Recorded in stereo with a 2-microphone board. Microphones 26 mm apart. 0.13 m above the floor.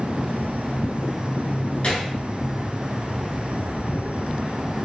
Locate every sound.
1.8 s a gunshot: 45° left (ahead or behind), 0.9 m